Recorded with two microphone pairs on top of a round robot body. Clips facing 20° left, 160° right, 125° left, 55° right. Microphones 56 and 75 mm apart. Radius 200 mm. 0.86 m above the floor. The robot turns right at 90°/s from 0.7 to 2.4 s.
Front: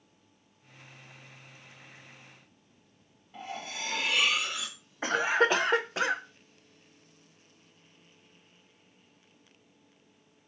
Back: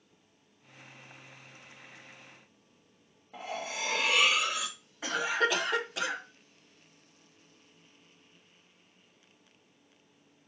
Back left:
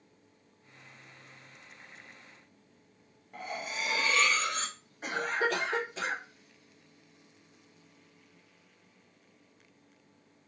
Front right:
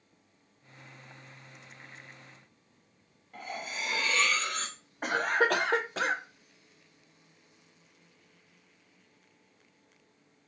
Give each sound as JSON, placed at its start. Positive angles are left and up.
{"t": 3.3, "sound": "cutlery clinking", "azimuth_deg": -155, "distance_m": 0.8}
{"t": 5.0, "sound": "a cough", "azimuth_deg": -30, "distance_m": 0.6}